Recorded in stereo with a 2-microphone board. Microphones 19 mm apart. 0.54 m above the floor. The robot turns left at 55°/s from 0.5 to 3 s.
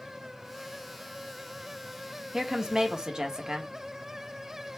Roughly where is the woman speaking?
Ahead right.